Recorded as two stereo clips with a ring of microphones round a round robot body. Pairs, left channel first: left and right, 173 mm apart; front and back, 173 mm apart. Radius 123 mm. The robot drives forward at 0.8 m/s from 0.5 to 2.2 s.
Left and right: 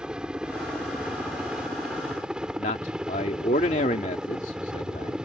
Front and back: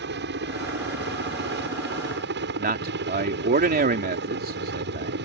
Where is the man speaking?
150° left.